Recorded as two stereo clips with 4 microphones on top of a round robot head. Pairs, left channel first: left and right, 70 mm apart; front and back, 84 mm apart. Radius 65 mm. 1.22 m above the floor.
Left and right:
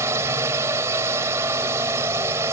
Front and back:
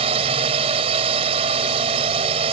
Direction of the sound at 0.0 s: 155° right.